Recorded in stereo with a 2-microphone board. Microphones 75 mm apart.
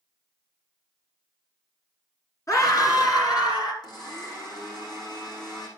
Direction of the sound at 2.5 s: 45° left (ahead or behind).